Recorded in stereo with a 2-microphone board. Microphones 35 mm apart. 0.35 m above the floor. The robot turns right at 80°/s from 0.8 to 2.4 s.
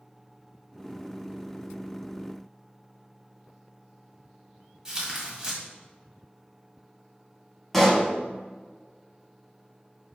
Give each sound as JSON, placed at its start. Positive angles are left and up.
{"t": 4.8, "sound": "tearing paper", "side_deg": -15, "distance_m": 1.8}
{"t": 7.7, "sound": "a pop", "side_deg": 5, "distance_m": 1.4}